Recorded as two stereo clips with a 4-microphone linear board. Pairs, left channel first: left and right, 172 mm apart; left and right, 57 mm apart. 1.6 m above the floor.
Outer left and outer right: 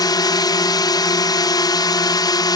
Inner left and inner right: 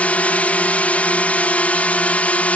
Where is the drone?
25° left (ahead or behind).